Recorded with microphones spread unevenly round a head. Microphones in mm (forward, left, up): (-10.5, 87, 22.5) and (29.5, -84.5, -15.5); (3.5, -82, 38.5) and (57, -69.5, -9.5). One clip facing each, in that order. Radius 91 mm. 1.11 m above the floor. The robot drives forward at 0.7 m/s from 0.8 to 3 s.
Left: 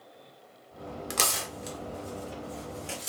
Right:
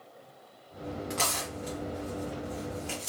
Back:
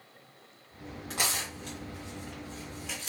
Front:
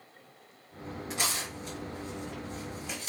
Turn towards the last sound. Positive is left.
turn(degrees=165)